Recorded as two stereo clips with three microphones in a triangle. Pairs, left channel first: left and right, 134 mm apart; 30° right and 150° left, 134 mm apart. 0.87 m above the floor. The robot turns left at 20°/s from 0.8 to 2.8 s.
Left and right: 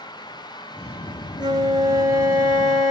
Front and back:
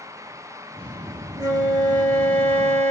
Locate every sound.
1.4 s a flute: 145° right, 2.0 m; by 2.9 s 170° right, 2.0 m